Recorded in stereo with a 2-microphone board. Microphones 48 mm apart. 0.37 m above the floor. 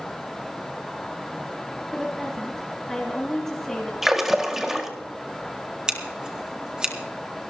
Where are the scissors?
15° right (ahead or behind), 1.9 m.